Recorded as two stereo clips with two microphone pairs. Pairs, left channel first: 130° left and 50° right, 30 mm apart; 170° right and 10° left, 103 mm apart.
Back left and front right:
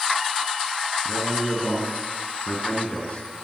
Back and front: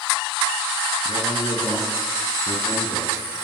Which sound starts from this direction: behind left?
A man speaking, at 1.1 s.